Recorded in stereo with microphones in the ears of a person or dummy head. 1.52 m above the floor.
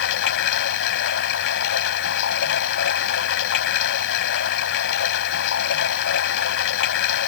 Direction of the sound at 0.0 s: 60° left (ahead or behind).